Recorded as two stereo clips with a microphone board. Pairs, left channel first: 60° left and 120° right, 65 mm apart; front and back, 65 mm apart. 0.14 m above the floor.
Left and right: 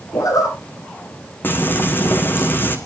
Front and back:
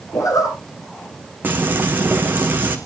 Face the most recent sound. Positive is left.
turn(degrees=120)